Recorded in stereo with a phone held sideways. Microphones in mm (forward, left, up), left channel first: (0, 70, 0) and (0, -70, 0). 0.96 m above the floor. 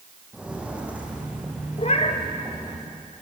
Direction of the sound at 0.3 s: 5° right (ahead or behind).